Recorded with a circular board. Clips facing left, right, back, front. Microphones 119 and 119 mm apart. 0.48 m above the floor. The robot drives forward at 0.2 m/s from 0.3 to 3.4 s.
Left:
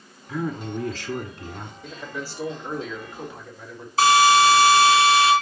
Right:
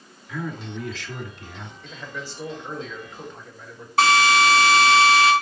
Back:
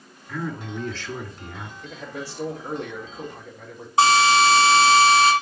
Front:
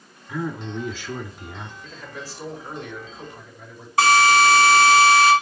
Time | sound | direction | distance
0.3 | a man speaking | 75° left | 1.6 m
1.8 | a man speaking | 170° left | 2.5 m
4.0 | a drill | 115° right | 3 m